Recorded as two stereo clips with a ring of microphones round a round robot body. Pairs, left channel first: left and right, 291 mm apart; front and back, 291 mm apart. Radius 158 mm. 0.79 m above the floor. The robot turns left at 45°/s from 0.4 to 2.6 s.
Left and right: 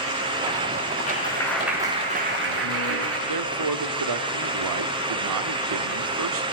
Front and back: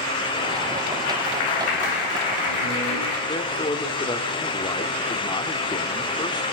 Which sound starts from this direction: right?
A man speaking, at 3.3 s.